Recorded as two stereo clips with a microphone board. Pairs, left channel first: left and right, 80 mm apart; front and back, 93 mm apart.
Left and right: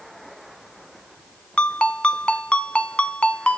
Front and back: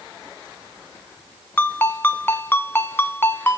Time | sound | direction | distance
1.6 | a ringtone | 30° left | 0.9 m